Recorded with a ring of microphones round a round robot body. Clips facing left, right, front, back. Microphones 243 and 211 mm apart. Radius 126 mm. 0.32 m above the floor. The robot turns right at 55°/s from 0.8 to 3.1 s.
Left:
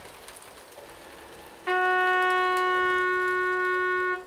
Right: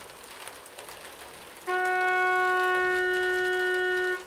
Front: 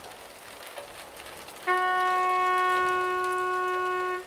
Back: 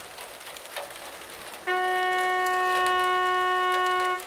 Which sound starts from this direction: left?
A trumpet, at 1.7 s.